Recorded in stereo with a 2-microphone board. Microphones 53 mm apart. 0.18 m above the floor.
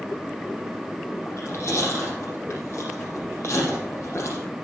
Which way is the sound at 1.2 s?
55° left (ahead or behind).